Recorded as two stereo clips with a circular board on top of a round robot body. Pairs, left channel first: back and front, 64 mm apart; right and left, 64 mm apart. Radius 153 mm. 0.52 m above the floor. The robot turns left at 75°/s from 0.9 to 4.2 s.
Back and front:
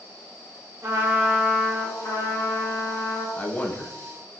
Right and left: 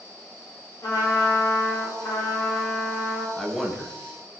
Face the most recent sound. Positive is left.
turn(degrees=140)